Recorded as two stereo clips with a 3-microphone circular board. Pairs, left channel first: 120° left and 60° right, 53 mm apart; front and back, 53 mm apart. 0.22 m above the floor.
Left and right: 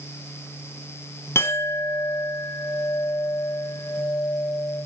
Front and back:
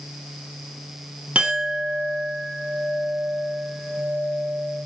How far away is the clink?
About 1.0 m.